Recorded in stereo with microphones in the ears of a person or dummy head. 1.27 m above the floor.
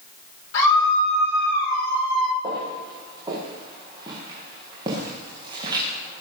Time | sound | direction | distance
0.5 | a scream | 70° left (ahead or behind) | 5 m
2.4 | footsteps | 20° right (ahead or behind) | 7.5 m